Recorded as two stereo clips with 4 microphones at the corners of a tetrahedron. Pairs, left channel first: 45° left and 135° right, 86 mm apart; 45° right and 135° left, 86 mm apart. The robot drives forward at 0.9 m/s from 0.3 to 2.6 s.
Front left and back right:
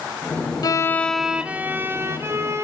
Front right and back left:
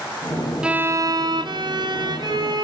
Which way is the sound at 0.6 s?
60° left.